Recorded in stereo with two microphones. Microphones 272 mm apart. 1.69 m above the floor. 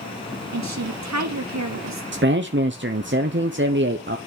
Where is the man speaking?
45° right (ahead or behind), 0.8 m.